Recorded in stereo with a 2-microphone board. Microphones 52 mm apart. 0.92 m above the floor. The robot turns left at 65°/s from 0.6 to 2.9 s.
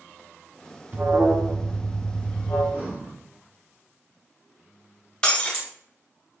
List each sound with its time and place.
0.9 s an alarm: 135° right, 1.5 m; by 2.6 s 115° left, 1.5 m
2.7 s breathing: 35° right (ahead or behind), 1.6 m; by 3.1 s 25° right (ahead or behind), 1.6 m
5.2 s breaking glass: 20° left (ahead or behind), 0.9 m